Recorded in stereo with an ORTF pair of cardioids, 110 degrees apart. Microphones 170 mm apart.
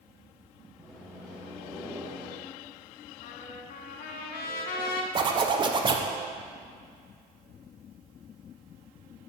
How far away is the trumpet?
About 0.9 m.